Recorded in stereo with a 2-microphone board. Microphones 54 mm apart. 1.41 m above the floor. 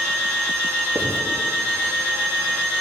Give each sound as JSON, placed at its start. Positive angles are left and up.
{"t": 0.9, "sound": "writing", "side_deg": -55, "distance_m": 3.5}